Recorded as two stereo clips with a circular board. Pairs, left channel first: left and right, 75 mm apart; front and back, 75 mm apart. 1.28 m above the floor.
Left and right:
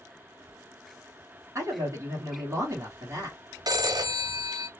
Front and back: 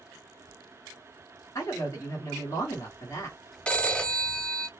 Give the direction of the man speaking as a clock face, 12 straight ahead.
1 o'clock.